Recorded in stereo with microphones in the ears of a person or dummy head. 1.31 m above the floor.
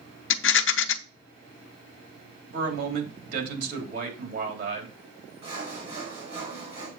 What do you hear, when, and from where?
0.3 s a rattle: 65° left (ahead or behind), 0.7 m
2.5 s a man speaking: 60° right (ahead or behind), 3.5 m
5.4 s sawing: 40° right (ahead or behind), 4.5 m